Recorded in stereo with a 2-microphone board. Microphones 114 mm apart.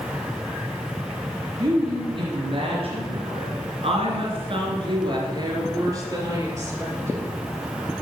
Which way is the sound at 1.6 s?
45° right (ahead or behind).